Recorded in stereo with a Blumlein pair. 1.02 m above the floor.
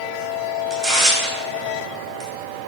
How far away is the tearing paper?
About 2.5 m.